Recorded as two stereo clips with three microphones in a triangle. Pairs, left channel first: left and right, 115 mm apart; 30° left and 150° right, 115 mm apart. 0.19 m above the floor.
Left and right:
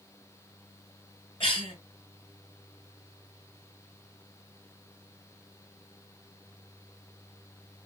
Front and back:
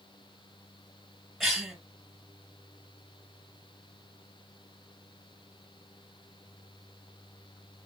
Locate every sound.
1.4 s a cough: 120° left, 2.5 m